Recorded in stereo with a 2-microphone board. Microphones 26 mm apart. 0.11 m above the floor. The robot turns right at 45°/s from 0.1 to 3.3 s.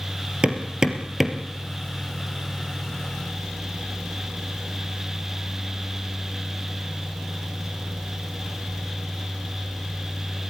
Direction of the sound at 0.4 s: 40° right (ahead or behind).